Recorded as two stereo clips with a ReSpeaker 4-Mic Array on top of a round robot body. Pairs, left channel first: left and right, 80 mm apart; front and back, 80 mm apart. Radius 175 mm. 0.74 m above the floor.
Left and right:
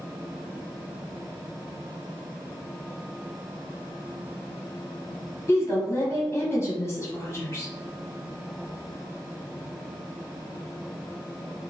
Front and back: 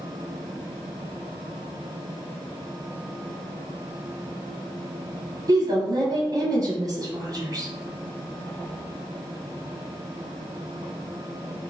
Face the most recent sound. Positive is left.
turn(degrees=145)